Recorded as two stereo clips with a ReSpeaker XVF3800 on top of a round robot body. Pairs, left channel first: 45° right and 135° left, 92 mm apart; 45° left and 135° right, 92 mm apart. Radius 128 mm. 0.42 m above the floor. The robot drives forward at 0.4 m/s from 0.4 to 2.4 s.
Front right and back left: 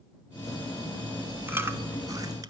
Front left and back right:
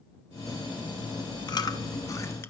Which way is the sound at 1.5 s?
70° left.